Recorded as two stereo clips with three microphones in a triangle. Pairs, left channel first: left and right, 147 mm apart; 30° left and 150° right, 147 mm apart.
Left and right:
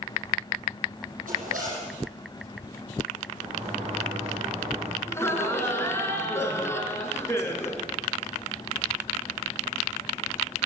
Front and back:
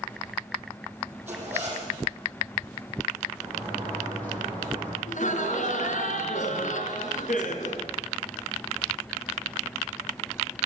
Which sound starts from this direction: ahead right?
A sliding door, at 3.4 s.